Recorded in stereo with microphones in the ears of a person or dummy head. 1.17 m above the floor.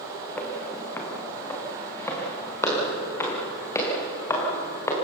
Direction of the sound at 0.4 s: 15° left (ahead or behind).